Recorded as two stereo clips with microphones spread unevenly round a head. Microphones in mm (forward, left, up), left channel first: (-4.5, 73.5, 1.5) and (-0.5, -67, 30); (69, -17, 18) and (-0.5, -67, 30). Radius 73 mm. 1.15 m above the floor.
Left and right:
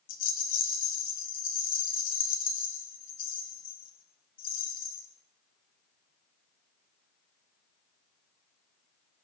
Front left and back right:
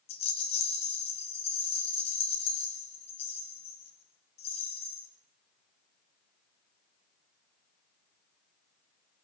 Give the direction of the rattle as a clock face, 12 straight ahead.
10 o'clock.